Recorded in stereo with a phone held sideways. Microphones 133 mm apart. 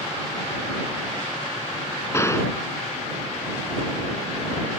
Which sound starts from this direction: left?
A gunshot, at 2.1 s.